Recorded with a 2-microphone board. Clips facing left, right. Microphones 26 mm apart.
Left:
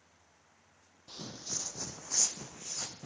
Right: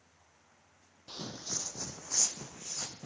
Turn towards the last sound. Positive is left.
turn(degrees=5)  # may be behind; listen again after turning